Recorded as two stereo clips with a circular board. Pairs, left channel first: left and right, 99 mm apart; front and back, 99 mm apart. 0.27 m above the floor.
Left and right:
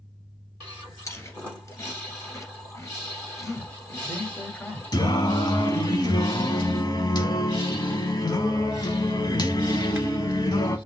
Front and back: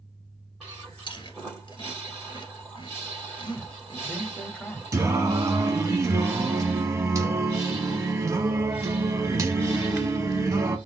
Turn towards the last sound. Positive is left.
turn(degrees=125)